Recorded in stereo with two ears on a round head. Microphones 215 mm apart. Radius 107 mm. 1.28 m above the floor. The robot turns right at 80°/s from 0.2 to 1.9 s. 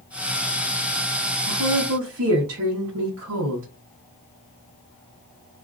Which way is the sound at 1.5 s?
100° right.